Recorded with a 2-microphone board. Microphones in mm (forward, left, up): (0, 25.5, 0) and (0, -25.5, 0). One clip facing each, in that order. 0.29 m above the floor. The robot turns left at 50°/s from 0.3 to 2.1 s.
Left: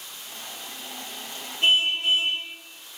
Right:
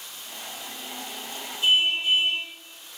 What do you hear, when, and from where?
1.6 s a car horn: 50° left (ahead or behind), 8.5 m; by 2.4 s 75° left (ahead or behind), 8.5 m